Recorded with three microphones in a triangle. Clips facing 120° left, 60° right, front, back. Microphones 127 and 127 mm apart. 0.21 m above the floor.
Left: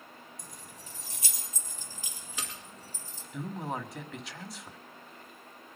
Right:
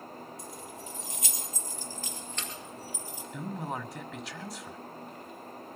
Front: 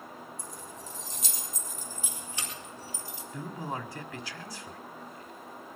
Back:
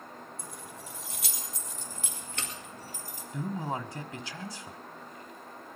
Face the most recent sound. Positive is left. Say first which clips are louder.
# left 1 dB, back 3 dB
turn(degrees=-150)